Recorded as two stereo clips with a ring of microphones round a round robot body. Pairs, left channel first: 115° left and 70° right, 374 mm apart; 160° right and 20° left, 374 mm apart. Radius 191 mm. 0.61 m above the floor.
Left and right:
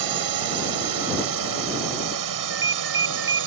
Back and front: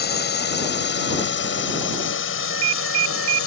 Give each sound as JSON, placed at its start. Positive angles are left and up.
{"t": 0.0, "sound": "a drone", "azimuth_deg": -95}
{"t": 2.4, "sound": "a ringtone", "azimuth_deg": -10}